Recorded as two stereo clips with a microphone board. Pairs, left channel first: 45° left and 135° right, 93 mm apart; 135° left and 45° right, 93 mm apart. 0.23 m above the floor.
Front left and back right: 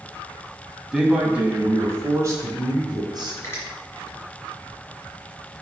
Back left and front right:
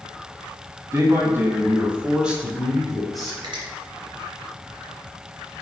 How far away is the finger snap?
About 3.5 m.